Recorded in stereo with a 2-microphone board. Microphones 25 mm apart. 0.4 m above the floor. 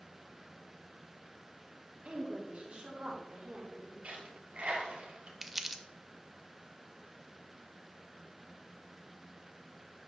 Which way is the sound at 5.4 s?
10° right (ahead or behind).